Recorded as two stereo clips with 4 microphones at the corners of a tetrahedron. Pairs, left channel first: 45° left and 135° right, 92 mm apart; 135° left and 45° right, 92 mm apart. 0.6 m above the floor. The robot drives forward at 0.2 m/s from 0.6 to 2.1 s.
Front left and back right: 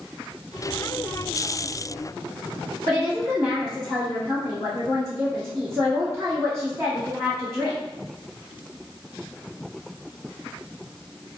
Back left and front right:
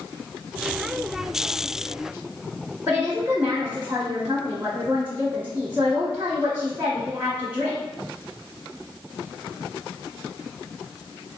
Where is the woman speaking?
95° right, 1.1 m.